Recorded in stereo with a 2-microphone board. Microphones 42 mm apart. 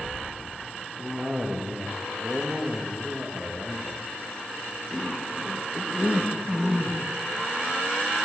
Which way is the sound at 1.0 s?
10° right (ahead or behind).